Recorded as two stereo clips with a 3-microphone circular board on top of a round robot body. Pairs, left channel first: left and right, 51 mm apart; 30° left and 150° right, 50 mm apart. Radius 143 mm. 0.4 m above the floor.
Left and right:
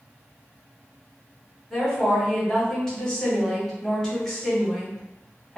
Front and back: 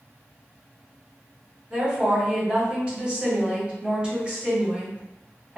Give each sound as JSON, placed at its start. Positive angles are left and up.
{"t": 1.7, "sound": "a woman speaking", "azimuth_deg": 160, "distance_m": 1.6}